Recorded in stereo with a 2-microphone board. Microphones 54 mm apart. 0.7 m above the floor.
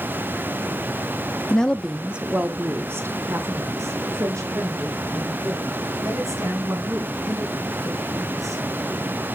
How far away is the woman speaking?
About 1.0 m.